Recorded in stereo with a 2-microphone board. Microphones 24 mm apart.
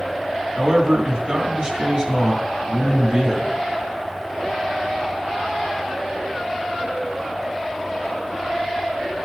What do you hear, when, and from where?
0.6 s a man speaking: 45° right (ahead or behind), 1.5 m